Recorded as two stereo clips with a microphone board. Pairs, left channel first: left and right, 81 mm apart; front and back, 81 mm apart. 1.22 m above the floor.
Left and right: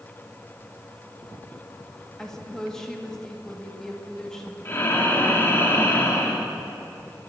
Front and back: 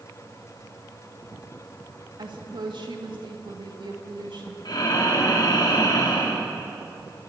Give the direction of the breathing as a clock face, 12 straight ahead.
11 o'clock.